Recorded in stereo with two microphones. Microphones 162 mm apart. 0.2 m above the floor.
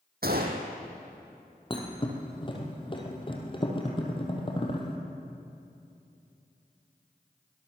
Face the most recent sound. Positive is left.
turn(degrees=30)  # may be behind; listen again after turning